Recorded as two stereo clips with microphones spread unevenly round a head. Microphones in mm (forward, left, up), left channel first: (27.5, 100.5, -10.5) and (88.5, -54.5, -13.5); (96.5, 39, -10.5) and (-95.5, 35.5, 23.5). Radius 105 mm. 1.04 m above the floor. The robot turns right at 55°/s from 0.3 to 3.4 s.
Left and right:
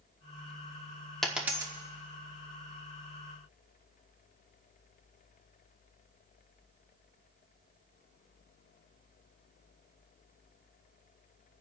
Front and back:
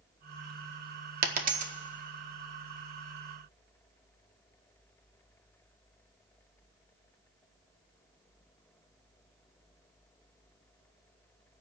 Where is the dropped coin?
165° right, 0.7 m; by 1.7 s 135° right, 0.7 m.